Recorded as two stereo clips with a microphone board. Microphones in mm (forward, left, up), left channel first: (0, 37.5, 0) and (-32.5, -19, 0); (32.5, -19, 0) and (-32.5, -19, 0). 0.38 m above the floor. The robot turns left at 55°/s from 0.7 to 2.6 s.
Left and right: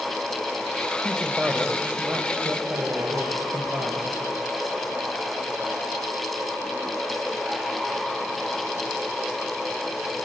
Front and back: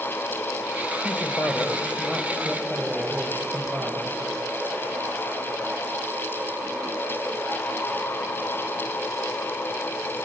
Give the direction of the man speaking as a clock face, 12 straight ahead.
1 o'clock.